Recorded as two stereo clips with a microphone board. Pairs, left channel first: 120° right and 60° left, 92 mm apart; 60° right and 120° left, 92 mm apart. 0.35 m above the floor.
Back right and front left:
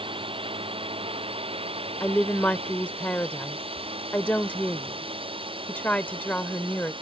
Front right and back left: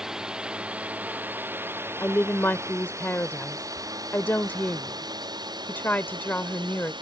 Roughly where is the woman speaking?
Right.